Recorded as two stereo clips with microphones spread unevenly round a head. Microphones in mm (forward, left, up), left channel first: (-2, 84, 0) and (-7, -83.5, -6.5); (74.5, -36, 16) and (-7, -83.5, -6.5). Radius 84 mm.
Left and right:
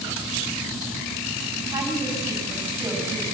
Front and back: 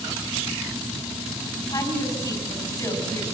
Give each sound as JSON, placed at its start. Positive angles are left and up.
{"t": 1.7, "sound": "a woman speaking", "azimuth_deg": -15, "distance_m": 6.5}